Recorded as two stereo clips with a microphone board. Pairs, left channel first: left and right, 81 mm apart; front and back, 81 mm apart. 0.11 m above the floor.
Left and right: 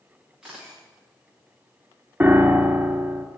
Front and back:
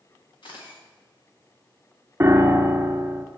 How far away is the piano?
About 0.8 m.